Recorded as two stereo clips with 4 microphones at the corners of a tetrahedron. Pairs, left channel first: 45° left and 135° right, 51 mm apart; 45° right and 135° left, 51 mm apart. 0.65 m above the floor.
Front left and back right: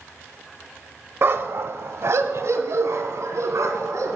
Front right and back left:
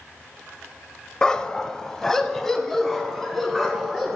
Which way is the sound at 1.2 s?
115° right.